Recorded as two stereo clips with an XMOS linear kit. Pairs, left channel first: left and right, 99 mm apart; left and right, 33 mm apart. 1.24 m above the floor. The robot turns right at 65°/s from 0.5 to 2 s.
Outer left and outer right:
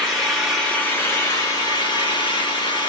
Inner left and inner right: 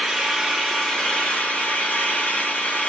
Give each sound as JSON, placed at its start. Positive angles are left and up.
{"t": 0.0, "sound": "an engine running", "azimuth_deg": 0, "distance_m": 1.1}